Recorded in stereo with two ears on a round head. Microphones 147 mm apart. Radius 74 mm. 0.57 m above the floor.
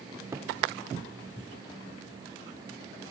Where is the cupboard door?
15° right (ahead or behind), 1.3 m.